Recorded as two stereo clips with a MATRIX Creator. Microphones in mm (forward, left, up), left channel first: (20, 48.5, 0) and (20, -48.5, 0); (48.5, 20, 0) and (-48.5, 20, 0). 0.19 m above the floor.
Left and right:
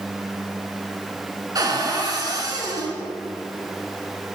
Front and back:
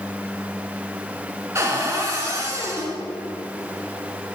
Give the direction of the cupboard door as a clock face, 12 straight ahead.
4 o'clock.